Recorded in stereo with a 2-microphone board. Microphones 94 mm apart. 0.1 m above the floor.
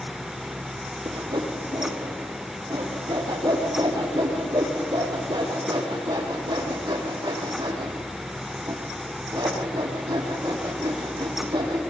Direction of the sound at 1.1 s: 45° right (ahead or behind).